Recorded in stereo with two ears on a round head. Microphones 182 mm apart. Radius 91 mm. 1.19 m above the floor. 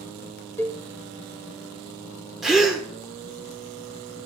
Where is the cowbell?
10° left (ahead or behind), 0.5 m.